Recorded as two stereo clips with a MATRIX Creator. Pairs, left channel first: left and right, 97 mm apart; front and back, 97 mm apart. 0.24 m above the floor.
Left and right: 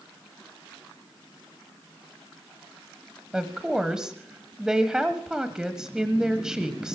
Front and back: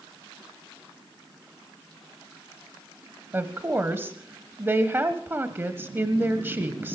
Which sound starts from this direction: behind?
A woman speaking, at 3.3 s.